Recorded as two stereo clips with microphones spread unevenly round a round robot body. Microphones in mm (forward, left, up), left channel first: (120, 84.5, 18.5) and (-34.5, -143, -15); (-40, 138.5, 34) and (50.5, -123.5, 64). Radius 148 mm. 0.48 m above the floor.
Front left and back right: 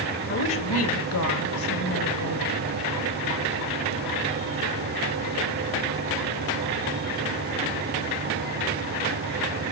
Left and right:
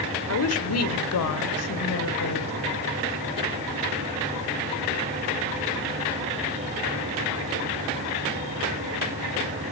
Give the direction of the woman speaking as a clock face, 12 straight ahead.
8 o'clock.